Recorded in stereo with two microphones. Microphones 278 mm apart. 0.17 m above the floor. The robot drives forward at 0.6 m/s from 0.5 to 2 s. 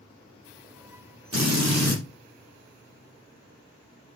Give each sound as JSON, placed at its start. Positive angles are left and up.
{"t": 1.3, "sound": "a drill", "side_deg": -75, "distance_m": 5.5}